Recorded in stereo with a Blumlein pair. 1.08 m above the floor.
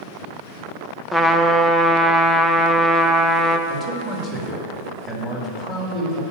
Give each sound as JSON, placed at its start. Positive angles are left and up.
{"t": 1.1, "sound": "a trumpet", "azimuth_deg": 0, "distance_m": 0.5}
{"t": 3.7, "sound": "a man speaking", "azimuth_deg": -5, "distance_m": 1.9}